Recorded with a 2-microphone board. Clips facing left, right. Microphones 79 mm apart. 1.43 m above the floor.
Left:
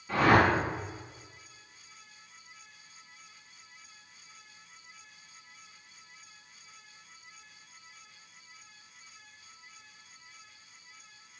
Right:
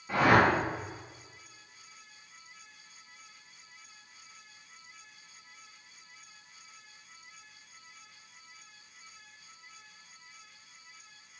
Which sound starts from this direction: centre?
A whoosh, at 0.1 s.